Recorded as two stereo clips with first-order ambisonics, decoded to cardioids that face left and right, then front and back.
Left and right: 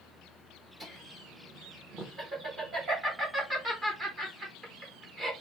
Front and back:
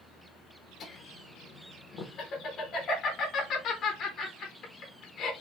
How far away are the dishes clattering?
I don't hear dishes clattering.